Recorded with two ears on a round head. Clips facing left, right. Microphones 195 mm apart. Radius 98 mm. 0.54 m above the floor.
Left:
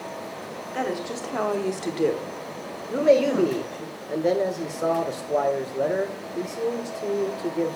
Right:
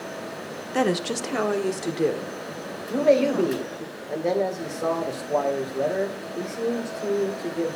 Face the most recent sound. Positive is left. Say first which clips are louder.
# left 1 dB
turn(degrees=10)  # may be behind; listen again after turning